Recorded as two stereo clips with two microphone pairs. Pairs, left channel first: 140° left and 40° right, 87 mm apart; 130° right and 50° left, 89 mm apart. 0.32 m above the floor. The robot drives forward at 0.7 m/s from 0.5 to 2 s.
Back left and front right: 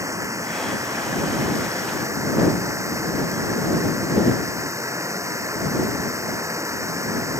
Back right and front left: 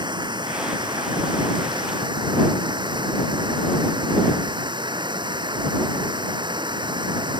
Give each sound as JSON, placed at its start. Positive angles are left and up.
{"t": 0.0, "sound": "running water", "azimuth_deg": 15}